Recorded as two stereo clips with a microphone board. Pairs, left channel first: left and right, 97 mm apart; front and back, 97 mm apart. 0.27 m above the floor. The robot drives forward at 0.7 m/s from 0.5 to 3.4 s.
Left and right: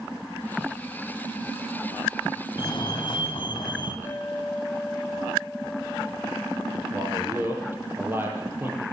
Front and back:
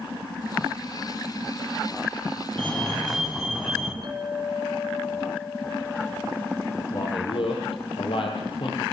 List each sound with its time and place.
2.6 s a fire alarm: 80° left, 3.5 m; by 3.9 s 90° left, 3.5 m
4.0 s a clink: 155° left, 2.5 m
6.9 s a man speaking: 25° right, 7 m